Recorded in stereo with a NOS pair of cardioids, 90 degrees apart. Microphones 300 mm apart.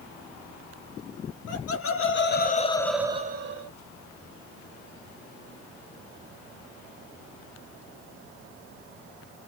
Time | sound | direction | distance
1.5 | laughter | 55° left | 1.5 m